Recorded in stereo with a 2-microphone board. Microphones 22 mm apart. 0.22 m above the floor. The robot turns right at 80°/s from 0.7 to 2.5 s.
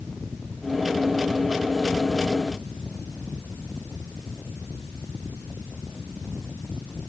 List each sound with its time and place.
Only background noise.